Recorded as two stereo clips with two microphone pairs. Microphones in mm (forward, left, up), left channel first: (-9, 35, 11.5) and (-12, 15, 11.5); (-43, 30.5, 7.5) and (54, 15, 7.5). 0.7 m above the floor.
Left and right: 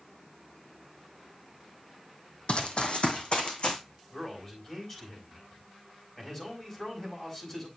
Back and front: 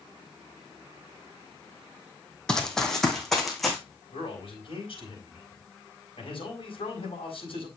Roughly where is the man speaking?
Behind left.